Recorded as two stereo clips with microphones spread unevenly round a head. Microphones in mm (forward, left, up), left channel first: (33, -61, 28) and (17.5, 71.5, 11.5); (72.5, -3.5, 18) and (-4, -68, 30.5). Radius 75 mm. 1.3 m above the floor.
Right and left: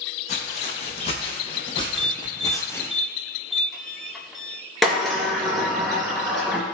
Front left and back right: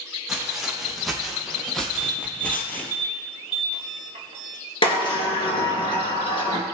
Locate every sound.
0.3 s footsteps: 55° right, 4 m; by 2.9 s 30° right, 1.5 m
2.0 s an alarm: straight behind, 1.6 m
4.8 s a sliding door: 5° left, 3 m